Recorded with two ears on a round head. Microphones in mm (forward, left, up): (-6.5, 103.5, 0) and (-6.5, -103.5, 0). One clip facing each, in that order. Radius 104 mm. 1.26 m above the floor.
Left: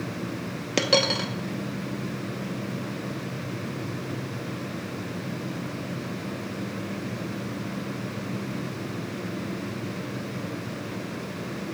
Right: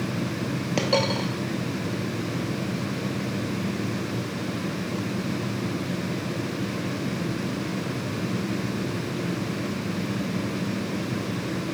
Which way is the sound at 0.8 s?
20° left (ahead or behind).